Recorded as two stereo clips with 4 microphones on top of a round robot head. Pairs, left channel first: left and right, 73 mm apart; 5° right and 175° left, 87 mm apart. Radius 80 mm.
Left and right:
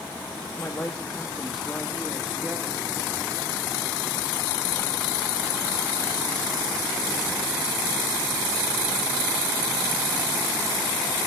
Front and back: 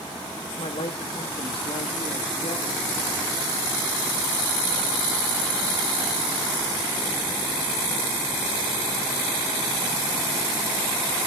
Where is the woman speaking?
25° left, 2.5 m; by 2.9 s 30° right, 2 m.